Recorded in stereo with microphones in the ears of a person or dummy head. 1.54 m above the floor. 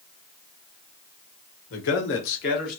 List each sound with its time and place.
1.7 s a man speaking: 65° left (ahead or behind), 1.2 m; by 2.8 s 55° left (ahead or behind), 1.5 m